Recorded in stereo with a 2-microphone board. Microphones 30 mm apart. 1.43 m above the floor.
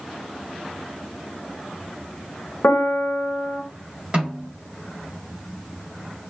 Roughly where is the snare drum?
Right.